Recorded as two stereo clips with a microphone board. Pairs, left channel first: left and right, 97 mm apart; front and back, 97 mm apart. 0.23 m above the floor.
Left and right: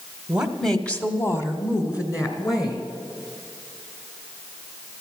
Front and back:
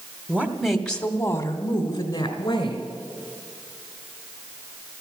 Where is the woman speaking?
155° right, 1.2 m; by 2.8 s 40° left, 3 m.